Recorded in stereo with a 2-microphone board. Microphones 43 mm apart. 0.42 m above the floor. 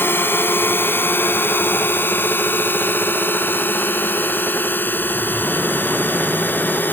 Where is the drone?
60° left (ahead or behind); by 6.9 s 50° left (ahead or behind).